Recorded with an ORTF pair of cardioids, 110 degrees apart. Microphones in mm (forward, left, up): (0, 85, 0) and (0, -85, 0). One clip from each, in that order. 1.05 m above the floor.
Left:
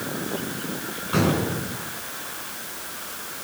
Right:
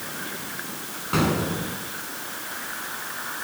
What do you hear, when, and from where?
1.1 s an explosion: 20° right, 8 m